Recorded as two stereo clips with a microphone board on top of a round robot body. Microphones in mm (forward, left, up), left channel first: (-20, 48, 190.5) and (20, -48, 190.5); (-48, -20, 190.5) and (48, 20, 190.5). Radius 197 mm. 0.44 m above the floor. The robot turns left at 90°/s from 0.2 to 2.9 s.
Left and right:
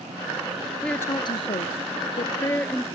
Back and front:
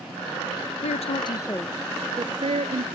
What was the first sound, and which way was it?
A woman speaking, 160° right.